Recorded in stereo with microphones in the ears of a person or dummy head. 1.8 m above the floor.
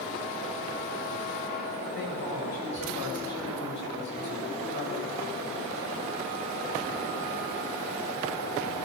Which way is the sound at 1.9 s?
65° left (ahead or behind).